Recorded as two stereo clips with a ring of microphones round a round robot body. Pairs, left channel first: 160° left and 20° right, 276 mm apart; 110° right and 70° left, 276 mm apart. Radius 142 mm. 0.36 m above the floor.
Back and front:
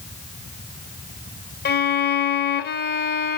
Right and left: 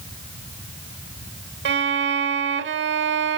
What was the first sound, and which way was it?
A violin, 110° left.